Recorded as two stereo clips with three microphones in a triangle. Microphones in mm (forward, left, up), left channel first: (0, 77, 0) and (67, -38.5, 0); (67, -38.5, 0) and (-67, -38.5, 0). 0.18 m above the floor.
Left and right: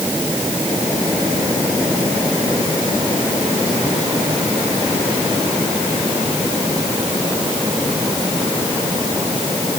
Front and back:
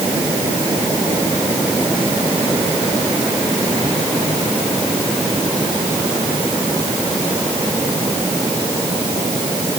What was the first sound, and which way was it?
Only background noise.